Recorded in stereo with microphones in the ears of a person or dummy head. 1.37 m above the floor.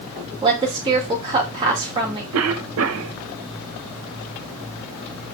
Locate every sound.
0.4 s a woman speaking: 25° right (ahead or behind), 2.5 m
2.3 s a cough: 85° right, 1.2 m